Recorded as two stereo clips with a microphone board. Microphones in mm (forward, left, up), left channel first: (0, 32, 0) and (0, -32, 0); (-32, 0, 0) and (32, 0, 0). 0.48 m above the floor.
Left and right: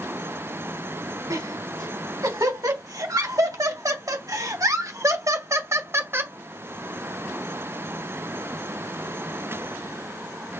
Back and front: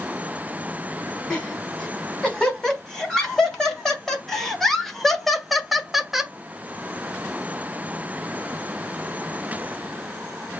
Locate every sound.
1.3 s laughter: 100° right, 3.5 m; by 6.3 s 75° right, 0.9 m